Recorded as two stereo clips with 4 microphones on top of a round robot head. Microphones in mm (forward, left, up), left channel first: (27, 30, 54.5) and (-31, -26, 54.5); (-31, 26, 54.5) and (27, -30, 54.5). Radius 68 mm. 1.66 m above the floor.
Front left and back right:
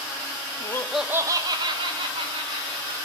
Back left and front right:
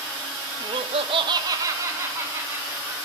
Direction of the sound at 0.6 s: 5° right.